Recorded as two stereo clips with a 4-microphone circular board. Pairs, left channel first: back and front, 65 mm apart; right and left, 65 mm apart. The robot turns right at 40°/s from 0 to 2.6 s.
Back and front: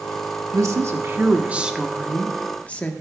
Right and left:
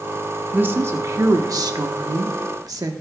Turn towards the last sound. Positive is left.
turn(degrees=110)